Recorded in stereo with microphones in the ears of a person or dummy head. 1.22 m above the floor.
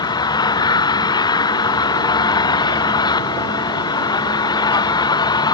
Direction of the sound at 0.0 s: 20° left (ahead or behind).